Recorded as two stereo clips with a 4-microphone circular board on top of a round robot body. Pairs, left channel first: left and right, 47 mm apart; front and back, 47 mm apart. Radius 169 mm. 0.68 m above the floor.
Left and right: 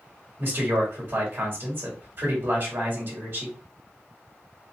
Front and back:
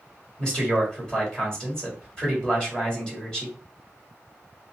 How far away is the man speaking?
About 1.5 m.